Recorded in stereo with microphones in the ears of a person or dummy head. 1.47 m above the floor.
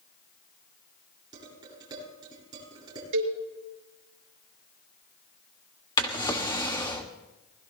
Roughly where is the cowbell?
Right.